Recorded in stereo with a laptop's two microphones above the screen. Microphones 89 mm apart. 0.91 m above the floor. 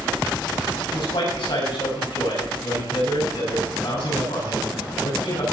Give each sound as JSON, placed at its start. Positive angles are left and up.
{"t": 0.9, "sound": "a man speaking", "side_deg": 70, "distance_m": 7.5}